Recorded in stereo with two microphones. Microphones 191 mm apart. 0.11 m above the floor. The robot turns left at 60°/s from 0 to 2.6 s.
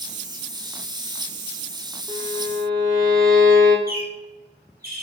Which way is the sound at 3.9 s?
50° right (ahead or behind).